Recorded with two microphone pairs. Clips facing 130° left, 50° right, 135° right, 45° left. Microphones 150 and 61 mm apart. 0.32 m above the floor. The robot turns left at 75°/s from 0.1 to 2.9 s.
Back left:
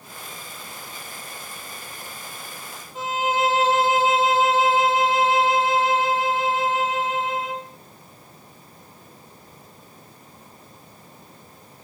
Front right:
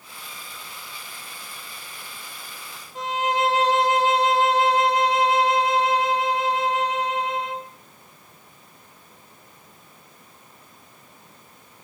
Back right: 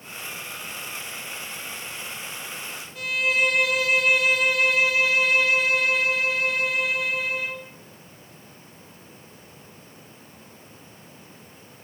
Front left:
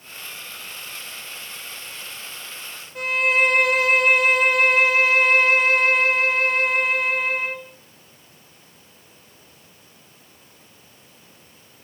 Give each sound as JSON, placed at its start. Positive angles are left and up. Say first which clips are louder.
{"t": 3.0, "sound": "a violin", "louder": "even, front left 4 dB", "azimuth_deg": 40, "distance_m": 1.2}